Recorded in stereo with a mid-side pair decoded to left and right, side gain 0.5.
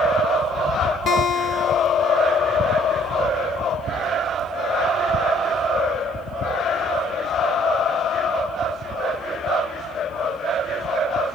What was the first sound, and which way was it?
A guitar, 55° left.